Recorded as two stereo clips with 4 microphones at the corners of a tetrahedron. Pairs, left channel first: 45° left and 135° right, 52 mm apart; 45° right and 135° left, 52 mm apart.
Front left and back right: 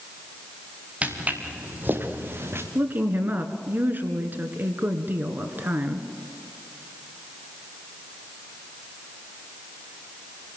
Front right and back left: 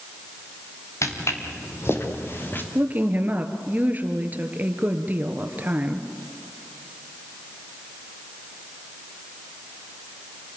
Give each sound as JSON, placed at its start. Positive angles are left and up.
{"t": 1.0, "sound": "footsteps", "azimuth_deg": -70, "distance_m": 4.5}
{"t": 2.8, "sound": "a woman speaking", "azimuth_deg": -175, "distance_m": 2.0}